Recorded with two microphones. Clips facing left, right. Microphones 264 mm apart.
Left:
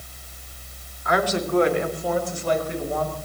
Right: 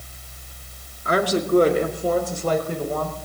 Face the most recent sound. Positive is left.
turn(degrees=-50)  # may be behind; listen again after turning